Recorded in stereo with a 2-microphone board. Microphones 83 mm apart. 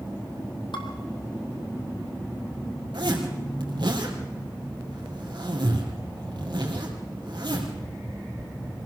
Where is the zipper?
65° right (ahead or behind), 3.5 m.